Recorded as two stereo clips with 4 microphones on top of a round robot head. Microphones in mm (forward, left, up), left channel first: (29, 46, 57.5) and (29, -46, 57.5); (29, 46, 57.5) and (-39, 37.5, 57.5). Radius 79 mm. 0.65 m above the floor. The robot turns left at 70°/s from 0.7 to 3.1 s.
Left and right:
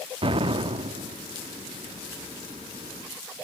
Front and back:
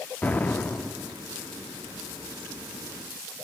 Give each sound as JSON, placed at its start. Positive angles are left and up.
{"t": 0.2, "sound": "an explosion", "azimuth_deg": -65, "distance_m": 0.5}